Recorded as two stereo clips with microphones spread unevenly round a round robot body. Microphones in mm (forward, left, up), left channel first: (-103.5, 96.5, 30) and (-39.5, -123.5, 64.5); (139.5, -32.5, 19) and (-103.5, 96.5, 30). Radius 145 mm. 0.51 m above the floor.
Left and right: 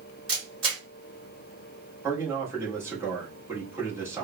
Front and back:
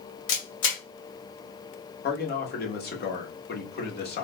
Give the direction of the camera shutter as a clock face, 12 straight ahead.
12 o'clock.